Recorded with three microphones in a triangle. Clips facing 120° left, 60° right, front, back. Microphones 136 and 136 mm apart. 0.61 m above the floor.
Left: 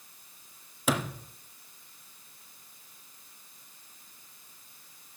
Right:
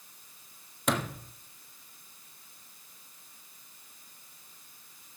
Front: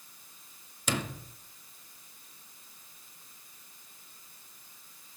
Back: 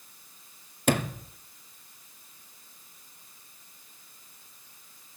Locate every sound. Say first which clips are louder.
0.9 s a sliding door: left 1 dB, back 8 dB; 155° right, 0.6 m